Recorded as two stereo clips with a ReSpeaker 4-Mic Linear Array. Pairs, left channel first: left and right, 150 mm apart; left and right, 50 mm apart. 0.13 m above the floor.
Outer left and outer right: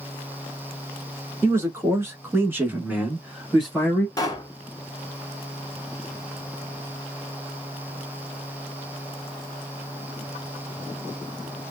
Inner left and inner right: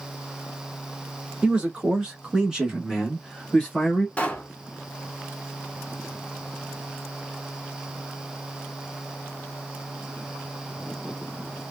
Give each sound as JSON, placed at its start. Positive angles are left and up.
{"t": 1.4, "sound": "a man speaking", "side_deg": -20, "distance_m": 1.6}
{"t": 4.2, "sound": "a pop", "side_deg": 25, "distance_m": 0.7}